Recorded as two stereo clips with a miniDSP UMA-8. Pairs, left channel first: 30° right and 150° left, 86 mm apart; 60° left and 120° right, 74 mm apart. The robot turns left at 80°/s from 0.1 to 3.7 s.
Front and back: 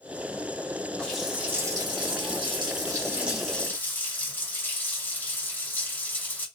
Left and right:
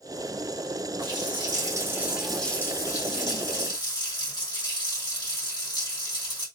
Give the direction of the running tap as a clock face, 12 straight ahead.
4 o'clock.